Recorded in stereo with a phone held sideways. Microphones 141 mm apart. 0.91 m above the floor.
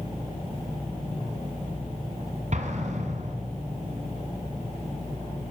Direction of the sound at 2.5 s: 55° right (ahead or behind).